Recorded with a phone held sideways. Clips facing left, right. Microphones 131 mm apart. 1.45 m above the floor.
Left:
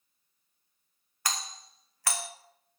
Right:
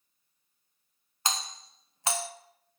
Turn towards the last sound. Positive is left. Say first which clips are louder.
# right 2 dB
turn(degrees=-25)  # may be behind; listen again after turning